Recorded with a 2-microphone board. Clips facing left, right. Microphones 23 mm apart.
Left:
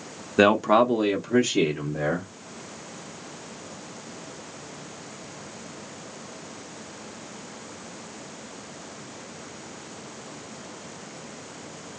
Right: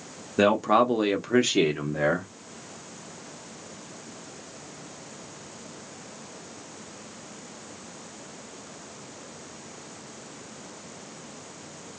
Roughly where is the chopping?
No chopping in this recording.